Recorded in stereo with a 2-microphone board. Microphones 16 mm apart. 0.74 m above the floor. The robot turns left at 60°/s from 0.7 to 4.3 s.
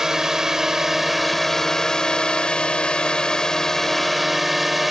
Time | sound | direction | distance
0.0 | a drone | 150° right | ?